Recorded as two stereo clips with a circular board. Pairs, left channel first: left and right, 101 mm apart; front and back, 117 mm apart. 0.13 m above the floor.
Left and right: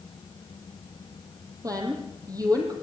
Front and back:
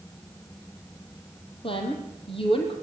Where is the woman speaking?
40° right, 5 m.